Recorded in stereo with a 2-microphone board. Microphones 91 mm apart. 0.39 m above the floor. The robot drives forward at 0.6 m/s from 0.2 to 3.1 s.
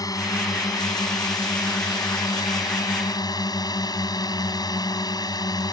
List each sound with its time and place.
0.0 s a drone: 45° left (ahead or behind); by 5.7 s 50° left (ahead or behind)